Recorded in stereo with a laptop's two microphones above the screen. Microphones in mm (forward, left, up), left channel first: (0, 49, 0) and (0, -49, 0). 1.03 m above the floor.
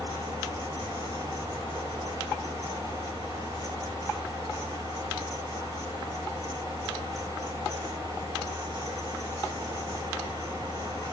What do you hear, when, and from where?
0.0 s a fan: 35° right (ahead or behind), 3.5 m